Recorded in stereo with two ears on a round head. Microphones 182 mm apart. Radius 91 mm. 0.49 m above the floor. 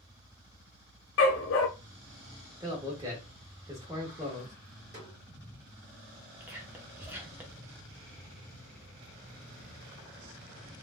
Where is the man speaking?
20° right (ahead or behind), 1.0 m.